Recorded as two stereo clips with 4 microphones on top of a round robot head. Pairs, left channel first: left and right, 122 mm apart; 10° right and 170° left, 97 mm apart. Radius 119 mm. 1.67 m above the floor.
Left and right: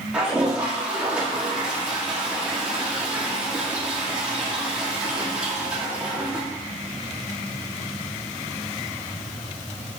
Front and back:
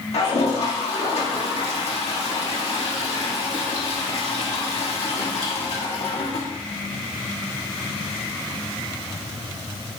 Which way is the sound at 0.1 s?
10° right.